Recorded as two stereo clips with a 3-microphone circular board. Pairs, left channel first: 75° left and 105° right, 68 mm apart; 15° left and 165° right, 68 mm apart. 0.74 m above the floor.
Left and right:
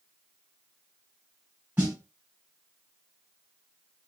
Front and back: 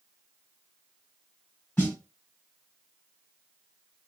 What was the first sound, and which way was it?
A snare drum, 50° right.